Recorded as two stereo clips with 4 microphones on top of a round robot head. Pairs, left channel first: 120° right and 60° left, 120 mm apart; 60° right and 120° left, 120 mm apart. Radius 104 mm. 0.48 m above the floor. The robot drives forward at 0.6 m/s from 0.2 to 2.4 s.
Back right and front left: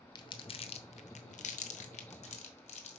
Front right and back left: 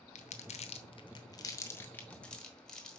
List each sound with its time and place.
0.1 s crumpling: 70° right, 0.9 m; by 3.0 s 145° right, 1.3 m